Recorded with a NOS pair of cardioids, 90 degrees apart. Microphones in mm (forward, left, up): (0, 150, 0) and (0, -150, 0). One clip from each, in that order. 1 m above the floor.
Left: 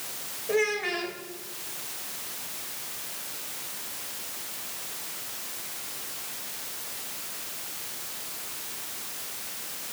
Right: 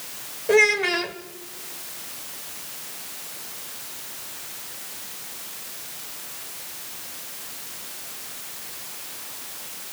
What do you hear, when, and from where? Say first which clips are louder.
0.5 s a child speaking: right 9 dB; 60° right, 2.5 m